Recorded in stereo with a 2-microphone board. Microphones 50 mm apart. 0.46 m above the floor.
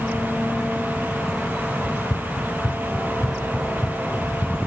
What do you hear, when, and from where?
1.8 s running footsteps: 75° left (ahead or behind); by 4.7 s 40° left (ahead or behind)